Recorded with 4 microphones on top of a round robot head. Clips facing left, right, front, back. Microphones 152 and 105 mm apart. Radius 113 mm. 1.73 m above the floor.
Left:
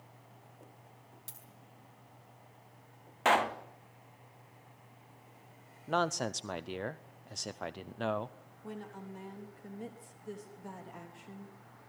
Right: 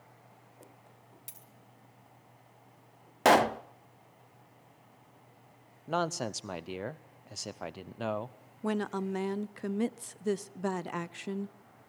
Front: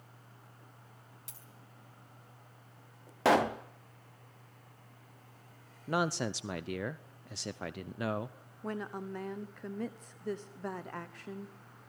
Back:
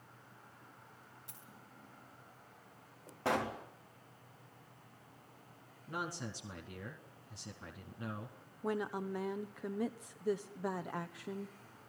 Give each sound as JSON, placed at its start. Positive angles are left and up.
{"t": 1.3, "sound": "a dropped coin", "azimuth_deg": -15, "distance_m": 4.5}
{"t": 3.2, "sound": "a pop", "azimuth_deg": -50, "distance_m": 0.6}
{"t": 5.9, "sound": "a man speaking", "azimuth_deg": -5, "distance_m": 0.6}
{"t": 8.6, "sound": "a woman speaking", "azimuth_deg": -95, "distance_m": 0.8}